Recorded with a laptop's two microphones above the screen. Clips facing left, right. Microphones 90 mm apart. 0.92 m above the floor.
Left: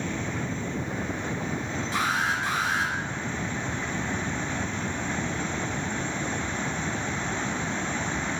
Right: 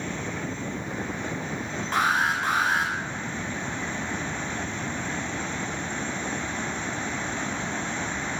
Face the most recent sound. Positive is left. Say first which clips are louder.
# right 4 dB
turn(degrees=-50)  # may be behind; listen again after turning